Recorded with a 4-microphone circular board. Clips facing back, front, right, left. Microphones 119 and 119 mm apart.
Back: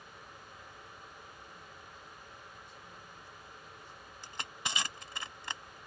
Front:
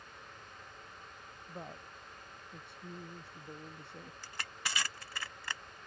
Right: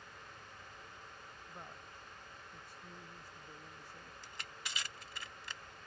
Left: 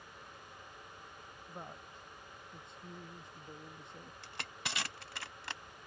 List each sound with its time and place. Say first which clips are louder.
1.5 s a woman speaking: front 5 dB, left 5 dB; 25° left
4.2 s crushing: back 3 dB, left 6 dB; 110° left